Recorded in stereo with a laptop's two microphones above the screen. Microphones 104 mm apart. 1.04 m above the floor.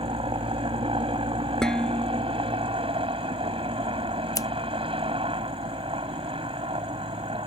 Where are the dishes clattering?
5° left (ahead or behind).